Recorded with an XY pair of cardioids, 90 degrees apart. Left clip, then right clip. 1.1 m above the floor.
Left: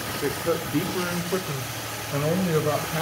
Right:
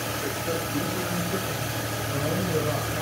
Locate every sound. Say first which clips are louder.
0.2 s a man speaking: left 3 dB; 55° left, 2.5 m; by 3.0 s 60° left, 4.5 m